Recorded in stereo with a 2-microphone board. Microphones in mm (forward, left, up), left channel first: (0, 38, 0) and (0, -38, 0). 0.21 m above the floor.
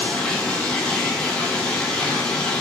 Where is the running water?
15° left (ahead or behind), 1.0 m.